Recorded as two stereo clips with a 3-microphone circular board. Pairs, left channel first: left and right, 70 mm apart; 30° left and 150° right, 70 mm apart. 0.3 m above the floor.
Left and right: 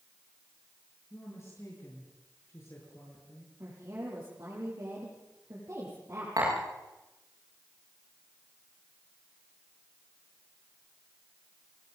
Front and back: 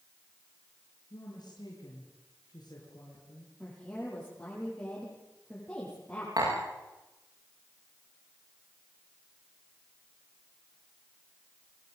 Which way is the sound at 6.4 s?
125° right.